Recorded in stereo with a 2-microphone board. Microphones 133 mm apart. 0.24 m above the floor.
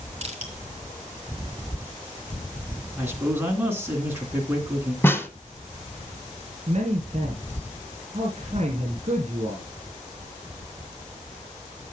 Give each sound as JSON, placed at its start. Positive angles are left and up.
{"t": 0.2, "sound": "crushing", "side_deg": -45, "distance_m": 3.0}
{"t": 3.0, "sound": "a man speaking", "side_deg": -15, "distance_m": 2.5}
{"t": 5.0, "sound": "a snare drum", "side_deg": 15, "distance_m": 0.8}
{"t": 6.7, "sound": "a man speaking", "side_deg": -55, "distance_m": 3.0}